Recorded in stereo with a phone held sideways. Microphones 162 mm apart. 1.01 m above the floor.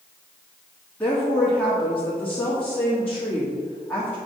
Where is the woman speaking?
10° left (ahead or behind), 1.5 m.